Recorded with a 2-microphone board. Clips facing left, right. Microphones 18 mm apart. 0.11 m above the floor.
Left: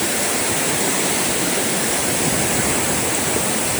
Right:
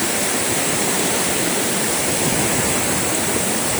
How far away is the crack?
No crack in this recording.